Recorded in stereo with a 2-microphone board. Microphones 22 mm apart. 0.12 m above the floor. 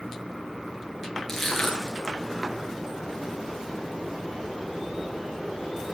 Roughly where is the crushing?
Centre.